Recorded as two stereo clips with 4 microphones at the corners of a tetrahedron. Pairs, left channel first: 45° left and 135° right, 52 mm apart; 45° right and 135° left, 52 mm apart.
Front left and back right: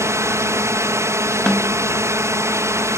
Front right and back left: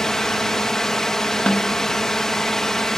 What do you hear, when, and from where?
0.0 s a drone: 125° right
1.5 s a snare drum: 10° right